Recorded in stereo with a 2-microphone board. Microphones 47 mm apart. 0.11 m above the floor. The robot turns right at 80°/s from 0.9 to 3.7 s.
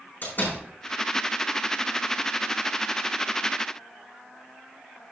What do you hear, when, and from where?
0.2 s a door slam: 45° left (ahead or behind), 4.5 m